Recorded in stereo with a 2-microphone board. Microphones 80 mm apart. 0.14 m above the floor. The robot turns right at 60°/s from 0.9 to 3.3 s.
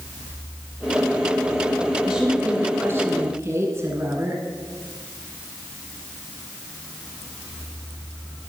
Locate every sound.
2.0 s a woman speaking: 165° right, 1.4 m; by 4.4 s 90° right, 1.4 m